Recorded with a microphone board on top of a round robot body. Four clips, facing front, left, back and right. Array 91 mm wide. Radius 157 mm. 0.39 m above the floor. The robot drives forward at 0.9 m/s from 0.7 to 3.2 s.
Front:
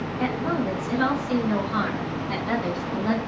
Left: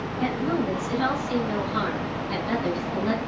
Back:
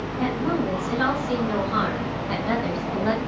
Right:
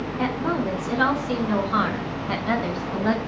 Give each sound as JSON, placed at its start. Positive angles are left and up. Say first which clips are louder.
{"t": 0.2, "sound": "a woman speaking", "louder": "even, back 2 dB", "azimuth_deg": -95, "distance_m": 6.5}